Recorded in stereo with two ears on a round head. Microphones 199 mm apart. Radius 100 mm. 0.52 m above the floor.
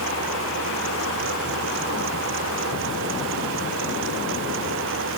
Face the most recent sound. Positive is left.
No sound to turn to.